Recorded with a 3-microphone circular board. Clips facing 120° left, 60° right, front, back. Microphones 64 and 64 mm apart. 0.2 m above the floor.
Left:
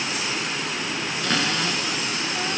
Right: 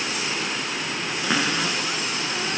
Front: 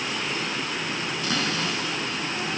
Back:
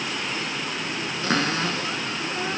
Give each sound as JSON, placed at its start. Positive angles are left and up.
{"t": 1.2, "sound": "a cupboard door", "azimuth_deg": -135, "distance_m": 1.1}